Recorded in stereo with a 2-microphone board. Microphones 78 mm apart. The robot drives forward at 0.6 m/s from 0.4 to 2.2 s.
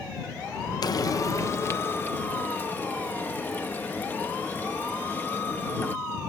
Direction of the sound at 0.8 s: 55° left (ahead or behind).